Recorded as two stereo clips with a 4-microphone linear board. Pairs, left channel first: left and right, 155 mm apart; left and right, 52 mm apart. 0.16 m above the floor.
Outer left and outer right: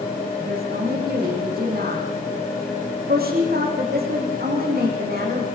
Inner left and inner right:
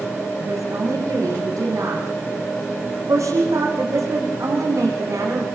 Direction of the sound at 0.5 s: 75° right (ahead or behind).